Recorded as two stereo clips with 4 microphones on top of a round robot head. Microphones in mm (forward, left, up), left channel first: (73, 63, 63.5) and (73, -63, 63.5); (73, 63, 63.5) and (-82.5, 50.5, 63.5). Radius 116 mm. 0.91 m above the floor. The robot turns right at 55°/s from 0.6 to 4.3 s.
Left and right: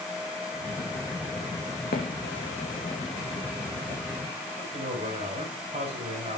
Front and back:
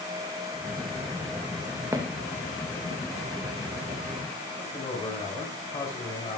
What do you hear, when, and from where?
1.9 s footsteps: 115° left, 3.5 m; by 4.0 s 120° right, 5 m
4.6 s a man speaking: 65° right, 5 m